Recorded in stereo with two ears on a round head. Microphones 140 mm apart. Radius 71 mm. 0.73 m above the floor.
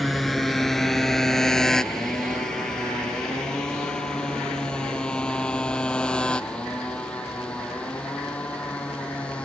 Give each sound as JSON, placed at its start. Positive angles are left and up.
{"t": 0.0, "sound": "a motorcycle", "side_deg": 0}